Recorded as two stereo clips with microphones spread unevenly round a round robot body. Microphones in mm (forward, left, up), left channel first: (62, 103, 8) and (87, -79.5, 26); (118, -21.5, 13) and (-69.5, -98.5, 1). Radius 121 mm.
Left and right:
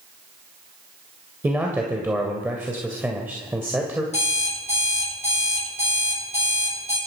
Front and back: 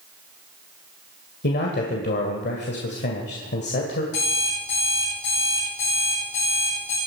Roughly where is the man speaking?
Ahead.